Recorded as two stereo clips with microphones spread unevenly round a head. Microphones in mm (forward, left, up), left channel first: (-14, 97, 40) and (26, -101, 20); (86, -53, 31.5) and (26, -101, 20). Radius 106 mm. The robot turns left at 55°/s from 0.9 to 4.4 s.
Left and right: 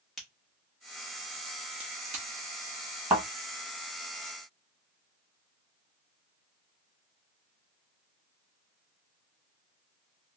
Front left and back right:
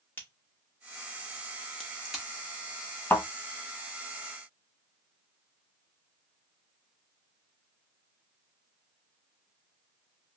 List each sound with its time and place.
0.2 s a crack: 25° left, 0.9 m; by 2.2 s 50° right, 0.9 m
3.1 s a thud: straight ahead, 1.9 m; by 3.3 s 10° right, 1.9 m